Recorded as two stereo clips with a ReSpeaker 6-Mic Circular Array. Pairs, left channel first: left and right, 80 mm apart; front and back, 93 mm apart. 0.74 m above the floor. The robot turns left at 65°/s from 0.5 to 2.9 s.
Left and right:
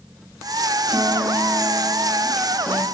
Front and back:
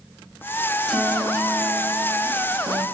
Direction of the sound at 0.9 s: 90° right.